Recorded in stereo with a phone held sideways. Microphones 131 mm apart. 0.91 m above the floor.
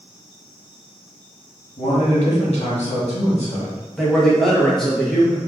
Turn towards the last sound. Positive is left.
turn(degrees=0)  # may be behind; listen again after turning